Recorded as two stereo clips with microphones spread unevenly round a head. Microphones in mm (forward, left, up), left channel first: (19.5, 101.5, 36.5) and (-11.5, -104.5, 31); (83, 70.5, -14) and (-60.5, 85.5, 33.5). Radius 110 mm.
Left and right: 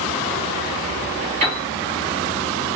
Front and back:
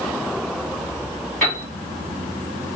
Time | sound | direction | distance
1.4 | a piano | 100° right | 1.5 m